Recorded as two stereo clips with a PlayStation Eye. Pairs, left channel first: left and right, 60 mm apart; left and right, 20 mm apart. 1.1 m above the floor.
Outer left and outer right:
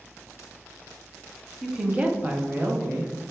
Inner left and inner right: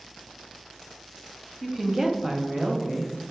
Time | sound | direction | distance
1.6 | a woman speaking | 5° right (ahead or behind) | 0.6 m